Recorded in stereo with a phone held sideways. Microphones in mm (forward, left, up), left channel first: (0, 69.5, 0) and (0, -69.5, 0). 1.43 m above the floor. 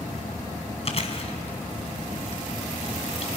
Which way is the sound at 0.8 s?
50° left (ahead or behind).